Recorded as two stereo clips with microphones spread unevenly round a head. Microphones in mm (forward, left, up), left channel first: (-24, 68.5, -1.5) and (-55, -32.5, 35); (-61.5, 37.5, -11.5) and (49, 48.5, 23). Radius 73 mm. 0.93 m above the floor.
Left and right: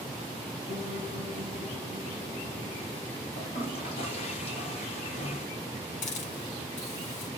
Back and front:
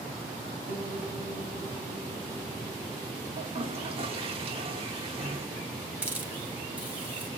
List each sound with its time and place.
0.7 s a piano: 20° left, 5.5 m
3.4 s a toilet flushing: 50° left, 3 m
6.0 s a hiss: 80° left, 2.5 m